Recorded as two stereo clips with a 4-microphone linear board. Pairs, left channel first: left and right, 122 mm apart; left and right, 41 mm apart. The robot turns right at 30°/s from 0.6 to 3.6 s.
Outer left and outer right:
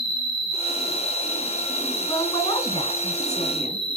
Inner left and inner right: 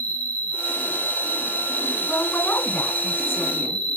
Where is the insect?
35° left, 2.5 m; by 4.0 s 125° left, 2.5 m.